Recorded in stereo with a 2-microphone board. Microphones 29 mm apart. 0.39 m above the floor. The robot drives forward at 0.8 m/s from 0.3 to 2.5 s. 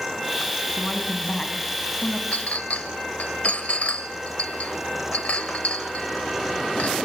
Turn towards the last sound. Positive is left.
turn(degrees=55)  # may be behind; listen again after turning